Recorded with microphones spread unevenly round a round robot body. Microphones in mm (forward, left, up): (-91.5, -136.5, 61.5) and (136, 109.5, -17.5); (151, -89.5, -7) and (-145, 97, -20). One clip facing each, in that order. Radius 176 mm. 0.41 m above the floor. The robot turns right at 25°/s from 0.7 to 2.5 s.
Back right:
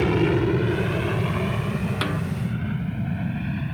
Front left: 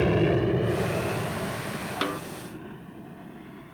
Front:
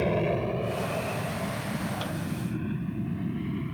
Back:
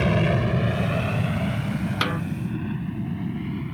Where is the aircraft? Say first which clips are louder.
Back right 2 dB, back 3 dB; 145° left; by 3.8 s 135° right.